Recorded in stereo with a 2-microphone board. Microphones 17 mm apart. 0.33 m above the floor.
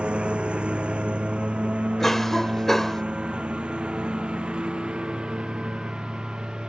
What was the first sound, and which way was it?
A lawn mower, 80° right.